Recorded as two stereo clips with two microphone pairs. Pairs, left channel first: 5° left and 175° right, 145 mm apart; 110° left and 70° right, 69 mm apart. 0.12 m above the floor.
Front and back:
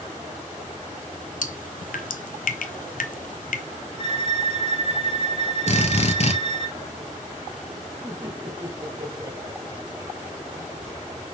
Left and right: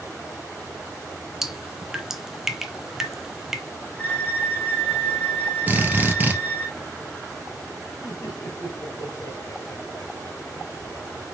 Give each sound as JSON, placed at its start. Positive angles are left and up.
{"t": 1.4, "sound": "dripping", "azimuth_deg": 10, "distance_m": 0.6}
{"t": 4.0, "sound": "a violin", "azimuth_deg": 175, "distance_m": 2.0}
{"t": 5.7, "sound": "a drill", "azimuth_deg": -15, "distance_m": 1.8}
{"t": 8.0, "sound": "laughter", "azimuth_deg": 115, "distance_m": 2.5}